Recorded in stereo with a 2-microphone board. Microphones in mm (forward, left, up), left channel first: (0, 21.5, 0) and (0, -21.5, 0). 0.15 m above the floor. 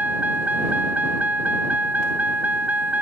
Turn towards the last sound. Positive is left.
turn(degrees=-40)  # may be behind; listen again after turning